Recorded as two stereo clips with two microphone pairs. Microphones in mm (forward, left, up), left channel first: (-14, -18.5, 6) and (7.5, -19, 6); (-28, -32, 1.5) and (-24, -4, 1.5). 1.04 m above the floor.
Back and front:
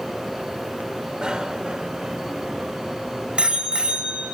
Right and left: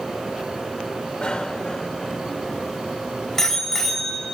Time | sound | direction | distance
1.2 | a bicycle bell | 45° right | 2.5 m